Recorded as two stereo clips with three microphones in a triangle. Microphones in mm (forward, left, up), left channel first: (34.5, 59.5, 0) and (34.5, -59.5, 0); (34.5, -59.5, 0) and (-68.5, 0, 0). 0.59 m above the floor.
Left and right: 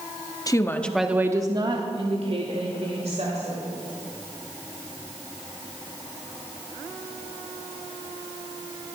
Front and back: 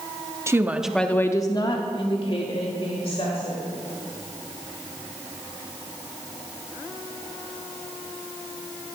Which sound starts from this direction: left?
A woman speaking, at 0.5 s.